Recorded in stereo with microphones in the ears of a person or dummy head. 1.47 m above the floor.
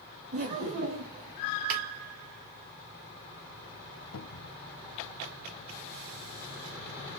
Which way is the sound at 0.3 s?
50° right (ahead or behind).